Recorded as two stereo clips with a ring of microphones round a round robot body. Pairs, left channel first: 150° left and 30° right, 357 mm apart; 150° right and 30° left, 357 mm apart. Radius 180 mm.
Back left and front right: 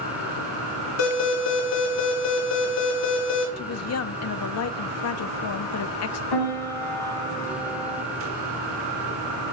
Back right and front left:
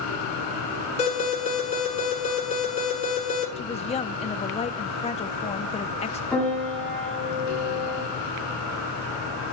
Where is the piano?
125° left, 9 m.